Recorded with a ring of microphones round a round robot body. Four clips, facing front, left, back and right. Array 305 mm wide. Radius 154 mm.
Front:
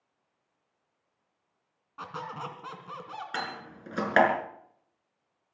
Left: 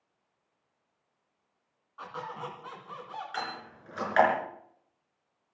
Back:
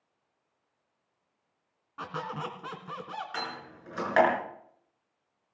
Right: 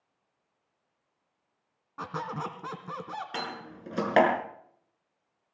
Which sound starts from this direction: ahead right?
A door slam, at 3.3 s.